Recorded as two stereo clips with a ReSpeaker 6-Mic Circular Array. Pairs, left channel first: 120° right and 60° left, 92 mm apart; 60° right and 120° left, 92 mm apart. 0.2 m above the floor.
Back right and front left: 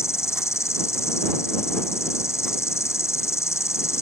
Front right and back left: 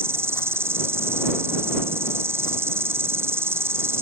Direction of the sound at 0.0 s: Straight behind.